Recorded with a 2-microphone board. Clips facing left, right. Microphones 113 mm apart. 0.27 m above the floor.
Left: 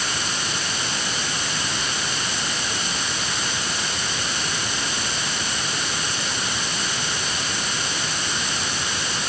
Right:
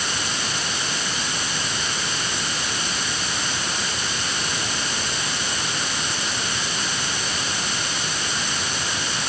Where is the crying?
No crying in this recording.